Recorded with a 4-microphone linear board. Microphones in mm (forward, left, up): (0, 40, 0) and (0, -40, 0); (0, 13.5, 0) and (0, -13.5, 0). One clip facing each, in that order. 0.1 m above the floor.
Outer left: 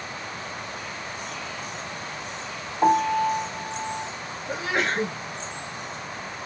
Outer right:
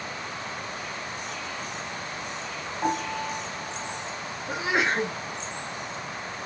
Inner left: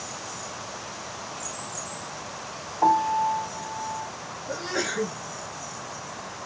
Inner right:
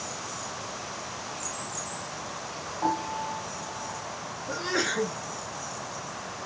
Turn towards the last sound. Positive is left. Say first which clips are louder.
# outer right 1 dB, inner right 1 dB
turn(degrees=-15)  # may be behind; listen again after turning